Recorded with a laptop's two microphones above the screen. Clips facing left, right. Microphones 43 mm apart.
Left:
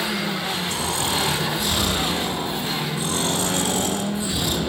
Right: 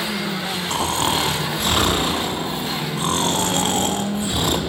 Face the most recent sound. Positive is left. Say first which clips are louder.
# right 7 dB
turn(degrees=-50)  # may be behind; listen again after turning